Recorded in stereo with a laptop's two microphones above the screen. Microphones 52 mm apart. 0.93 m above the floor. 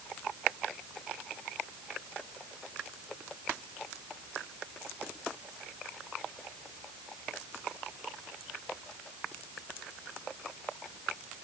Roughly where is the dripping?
No dripping in this recording.